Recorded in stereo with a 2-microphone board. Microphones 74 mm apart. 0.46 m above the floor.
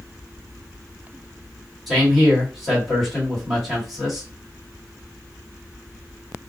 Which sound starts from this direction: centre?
A man speaking, at 1.9 s.